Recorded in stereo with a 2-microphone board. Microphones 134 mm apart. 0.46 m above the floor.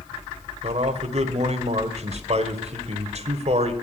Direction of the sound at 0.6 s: 50° right (ahead or behind).